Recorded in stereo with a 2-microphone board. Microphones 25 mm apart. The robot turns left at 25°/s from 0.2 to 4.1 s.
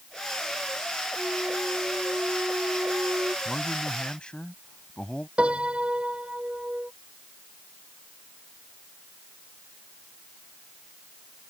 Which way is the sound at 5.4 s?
45° right (ahead or behind).